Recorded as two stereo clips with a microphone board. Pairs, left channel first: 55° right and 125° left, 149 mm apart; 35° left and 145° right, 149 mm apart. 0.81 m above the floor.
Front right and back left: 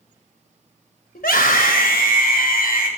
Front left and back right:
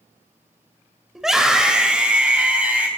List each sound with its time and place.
1.1 s a scream: 60° right, 3.5 m; by 2.9 s 65° right, 5.5 m